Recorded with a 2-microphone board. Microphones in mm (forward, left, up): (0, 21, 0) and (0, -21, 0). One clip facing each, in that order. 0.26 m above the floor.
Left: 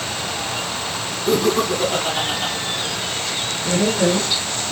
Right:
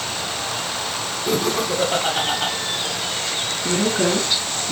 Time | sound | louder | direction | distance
1.3 | laughter | left 4 dB | 30° right (ahead or behind) | 1.4 m
3.6 | a woman speaking | left 2 dB | 55° right (ahead or behind) | 3 m